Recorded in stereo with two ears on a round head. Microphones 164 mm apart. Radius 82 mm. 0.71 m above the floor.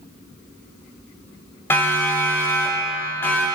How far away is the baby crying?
I don't hear a baby crying.